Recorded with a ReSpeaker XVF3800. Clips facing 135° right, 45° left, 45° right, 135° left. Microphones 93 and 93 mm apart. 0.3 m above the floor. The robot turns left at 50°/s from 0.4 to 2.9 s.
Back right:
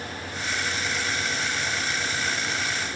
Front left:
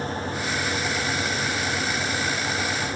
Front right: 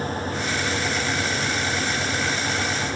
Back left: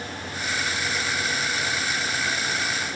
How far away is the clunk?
No clunk in this recording.